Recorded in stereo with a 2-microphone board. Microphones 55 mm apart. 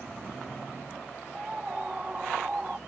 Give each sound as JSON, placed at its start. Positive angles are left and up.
{"t": 1.3, "sound": "a scream", "side_deg": -20}